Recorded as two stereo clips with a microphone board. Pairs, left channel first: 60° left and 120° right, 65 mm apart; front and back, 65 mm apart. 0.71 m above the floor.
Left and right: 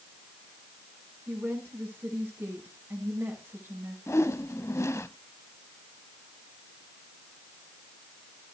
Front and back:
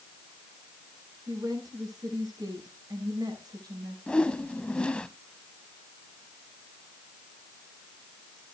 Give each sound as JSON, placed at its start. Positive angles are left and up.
{"t": 1.3, "sound": "a woman speaking", "azimuth_deg": -175, "distance_m": 6.0}
{"t": 4.1, "sound": "a whoosh", "azimuth_deg": 70, "distance_m": 0.7}